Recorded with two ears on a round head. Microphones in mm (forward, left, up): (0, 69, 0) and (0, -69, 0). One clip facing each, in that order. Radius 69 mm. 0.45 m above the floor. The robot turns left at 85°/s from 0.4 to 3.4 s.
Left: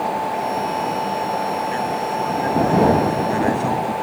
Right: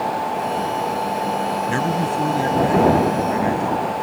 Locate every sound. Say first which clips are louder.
1.7 s a man speaking: right 1 dB; 85° right; by 3.9 s 130° left